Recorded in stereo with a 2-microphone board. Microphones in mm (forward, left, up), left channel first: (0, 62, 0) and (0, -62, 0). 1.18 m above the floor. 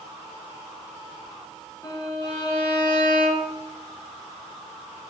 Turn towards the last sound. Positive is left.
turn(degrees=30)  # may be behind; listen again after turning